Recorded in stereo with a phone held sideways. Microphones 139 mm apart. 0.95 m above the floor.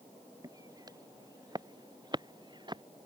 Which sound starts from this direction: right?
Footsteps, at 0.4 s.